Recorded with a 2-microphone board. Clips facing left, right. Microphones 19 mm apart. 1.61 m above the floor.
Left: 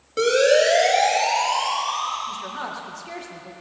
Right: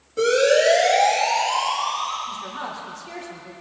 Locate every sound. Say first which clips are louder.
0.2 s a siren: even; 45° left (ahead or behind), 4 m; by 2.2 s 35° left (ahead or behind), 7 m
2.3 s a woman speaking: left 1 dB; 15° left (ahead or behind), 1.9 m